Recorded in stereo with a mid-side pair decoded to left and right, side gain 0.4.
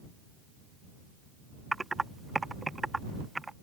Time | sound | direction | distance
1.7 | typing on a keyboard | 20° right | ?